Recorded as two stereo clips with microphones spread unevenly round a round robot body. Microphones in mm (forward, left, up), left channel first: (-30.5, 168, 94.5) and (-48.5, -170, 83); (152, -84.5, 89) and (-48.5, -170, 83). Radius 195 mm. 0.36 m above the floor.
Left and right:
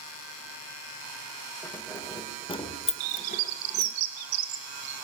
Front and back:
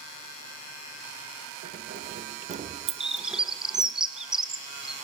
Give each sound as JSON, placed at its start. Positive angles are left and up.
{"t": 1.6, "sound": "keys jangling", "azimuth_deg": 170, "distance_m": 1.6}
{"t": 3.0, "sound": "a bird", "azimuth_deg": -70, "distance_m": 1.8}